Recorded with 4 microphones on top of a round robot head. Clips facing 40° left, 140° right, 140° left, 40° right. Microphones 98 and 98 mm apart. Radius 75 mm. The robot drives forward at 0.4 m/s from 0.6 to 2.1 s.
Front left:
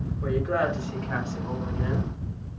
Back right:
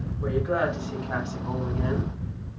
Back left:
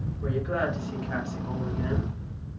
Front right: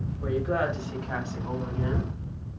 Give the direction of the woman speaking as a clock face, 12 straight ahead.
3 o'clock.